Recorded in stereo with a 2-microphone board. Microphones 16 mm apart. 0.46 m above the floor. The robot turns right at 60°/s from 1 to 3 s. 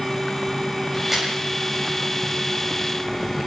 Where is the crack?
20° right (ahead or behind), 9.5 m; by 1.3 s 35° right (ahead or behind), 9.5 m.